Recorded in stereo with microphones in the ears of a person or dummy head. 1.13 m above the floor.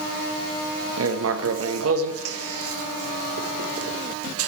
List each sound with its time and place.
1.0 s writing: 70° right (ahead or behind), 1.2 m